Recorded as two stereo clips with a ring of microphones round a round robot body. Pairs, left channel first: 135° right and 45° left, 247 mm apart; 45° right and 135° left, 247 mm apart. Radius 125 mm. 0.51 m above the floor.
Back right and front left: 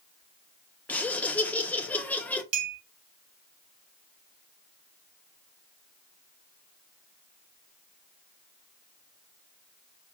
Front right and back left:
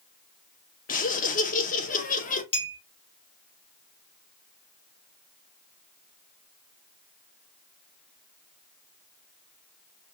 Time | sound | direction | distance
0.9 | laughter | 55° right | 0.8 m
2.5 | a clink | 25° left | 1.5 m